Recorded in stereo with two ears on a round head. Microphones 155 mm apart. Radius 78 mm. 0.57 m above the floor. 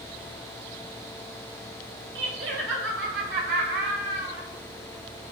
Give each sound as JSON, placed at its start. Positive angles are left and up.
{"t": 2.1, "sound": "laughter", "side_deg": -70, "distance_m": 1.7}